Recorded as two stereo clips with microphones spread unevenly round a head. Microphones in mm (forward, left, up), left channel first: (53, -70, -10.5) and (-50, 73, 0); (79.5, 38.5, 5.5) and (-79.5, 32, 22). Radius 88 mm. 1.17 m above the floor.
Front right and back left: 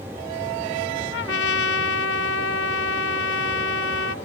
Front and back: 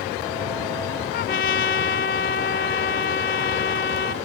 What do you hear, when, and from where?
1.1 s a trumpet: 40° right